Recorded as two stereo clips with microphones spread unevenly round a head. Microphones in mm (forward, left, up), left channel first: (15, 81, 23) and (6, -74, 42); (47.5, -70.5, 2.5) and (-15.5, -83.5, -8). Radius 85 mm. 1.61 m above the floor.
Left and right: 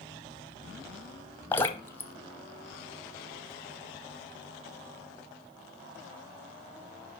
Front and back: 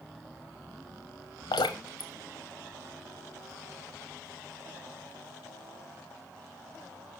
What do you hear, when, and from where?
1.5 s dripping: 10° left, 0.7 m